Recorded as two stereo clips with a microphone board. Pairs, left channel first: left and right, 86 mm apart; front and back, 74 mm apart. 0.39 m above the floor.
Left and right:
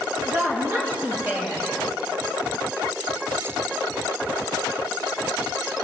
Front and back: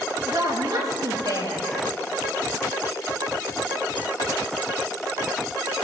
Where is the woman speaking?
155° right, 5 m.